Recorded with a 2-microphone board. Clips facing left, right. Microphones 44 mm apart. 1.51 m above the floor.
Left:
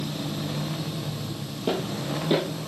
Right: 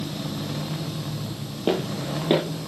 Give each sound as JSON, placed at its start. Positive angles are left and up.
{"t": 1.7, "sound": "footsteps", "side_deg": -30, "distance_m": 1.7}